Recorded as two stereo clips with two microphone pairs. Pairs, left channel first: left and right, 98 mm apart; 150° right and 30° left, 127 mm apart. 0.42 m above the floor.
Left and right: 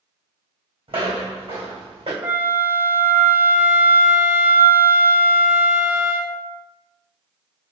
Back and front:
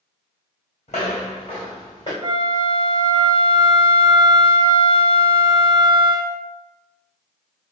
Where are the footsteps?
120° right, 1.6 m; by 2.1 s 100° right, 2.5 m.